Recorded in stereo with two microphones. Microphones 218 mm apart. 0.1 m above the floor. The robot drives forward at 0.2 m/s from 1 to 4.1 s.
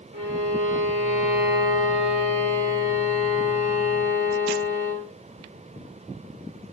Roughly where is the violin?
Right.